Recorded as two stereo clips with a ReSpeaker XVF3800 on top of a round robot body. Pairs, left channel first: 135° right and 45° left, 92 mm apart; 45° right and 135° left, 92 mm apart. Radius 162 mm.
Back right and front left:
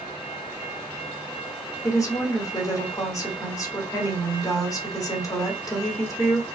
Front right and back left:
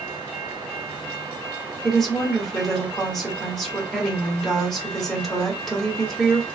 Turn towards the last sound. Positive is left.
turn(degrees=-130)